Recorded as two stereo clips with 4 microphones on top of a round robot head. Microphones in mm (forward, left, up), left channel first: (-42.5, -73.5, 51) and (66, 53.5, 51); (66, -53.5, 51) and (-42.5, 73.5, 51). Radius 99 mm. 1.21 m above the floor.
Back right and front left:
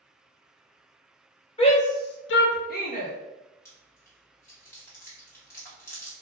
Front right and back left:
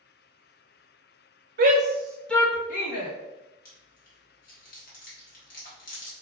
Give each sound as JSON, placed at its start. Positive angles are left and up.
{"t": 1.6, "sound": "a shout", "azimuth_deg": 170, "distance_m": 0.9}
{"t": 3.6, "sound": "chewing", "azimuth_deg": -60, "distance_m": 0.9}